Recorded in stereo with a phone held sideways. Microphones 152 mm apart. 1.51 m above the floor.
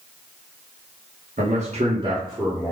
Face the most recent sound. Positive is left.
turn(degrees=-5)  # may be behind; listen again after turning